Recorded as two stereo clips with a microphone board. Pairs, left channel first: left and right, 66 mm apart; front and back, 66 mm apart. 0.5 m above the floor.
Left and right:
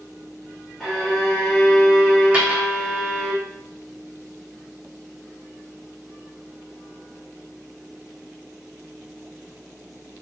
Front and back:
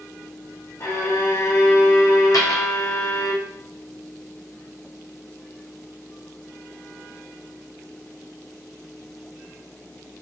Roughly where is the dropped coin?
Ahead.